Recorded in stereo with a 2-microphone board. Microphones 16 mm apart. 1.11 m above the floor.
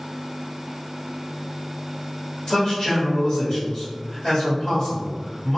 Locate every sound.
2.5 s a man speaking: 50° left (ahead or behind), 1.3 m